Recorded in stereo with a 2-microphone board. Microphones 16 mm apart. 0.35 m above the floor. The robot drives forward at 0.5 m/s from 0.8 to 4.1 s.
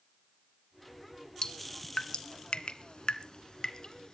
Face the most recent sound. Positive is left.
turn(degrees=45)  # may be behind; listen again after turning